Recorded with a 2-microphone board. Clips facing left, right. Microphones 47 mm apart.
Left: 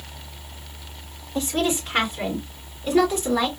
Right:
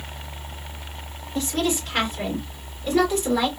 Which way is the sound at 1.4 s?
25° left (ahead or behind).